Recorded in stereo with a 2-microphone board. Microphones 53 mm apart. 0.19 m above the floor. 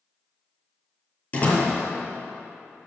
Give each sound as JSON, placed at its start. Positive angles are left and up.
{"t": 1.3, "sound": "a door slam", "side_deg": 30, "distance_m": 4.0}